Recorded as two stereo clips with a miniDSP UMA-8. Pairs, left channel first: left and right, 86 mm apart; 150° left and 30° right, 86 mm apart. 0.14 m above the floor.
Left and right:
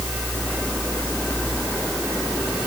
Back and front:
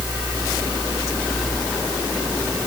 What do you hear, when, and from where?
Only background noise.